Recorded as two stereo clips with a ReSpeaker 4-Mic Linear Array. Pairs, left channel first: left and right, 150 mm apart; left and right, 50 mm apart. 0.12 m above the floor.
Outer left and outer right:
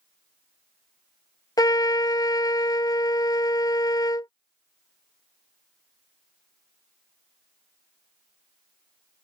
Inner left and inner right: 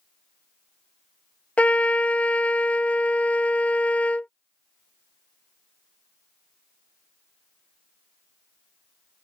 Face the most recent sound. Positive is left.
turn(degrees=25)  # may be behind; listen again after turning